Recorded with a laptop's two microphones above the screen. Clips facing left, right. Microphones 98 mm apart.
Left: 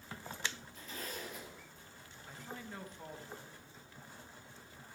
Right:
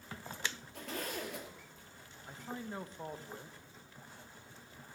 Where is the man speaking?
30° right (ahead or behind), 0.8 m.